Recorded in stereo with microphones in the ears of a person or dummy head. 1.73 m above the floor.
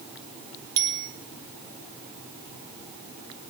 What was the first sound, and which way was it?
A bicycle bell, 55° right (ahead or behind).